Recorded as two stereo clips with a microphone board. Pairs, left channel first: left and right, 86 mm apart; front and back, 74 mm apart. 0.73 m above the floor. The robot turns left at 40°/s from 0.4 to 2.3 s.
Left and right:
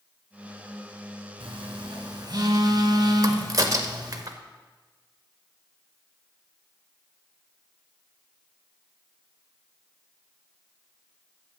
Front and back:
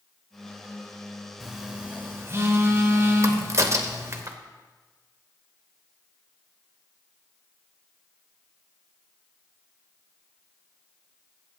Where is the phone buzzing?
95° right, 1.8 m; by 4.2 s 130° right, 1.8 m.